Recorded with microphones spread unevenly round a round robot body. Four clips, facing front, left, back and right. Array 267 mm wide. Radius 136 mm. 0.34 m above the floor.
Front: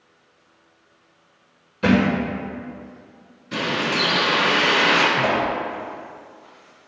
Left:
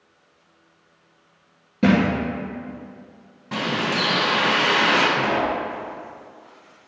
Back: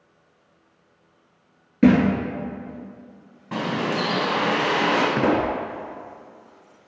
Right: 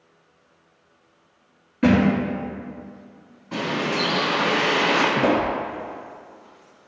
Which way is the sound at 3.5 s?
135° left.